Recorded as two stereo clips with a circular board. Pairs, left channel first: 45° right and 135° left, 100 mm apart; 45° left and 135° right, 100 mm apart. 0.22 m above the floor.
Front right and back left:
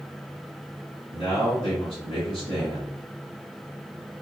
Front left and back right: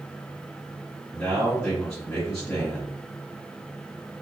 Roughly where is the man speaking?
Ahead right.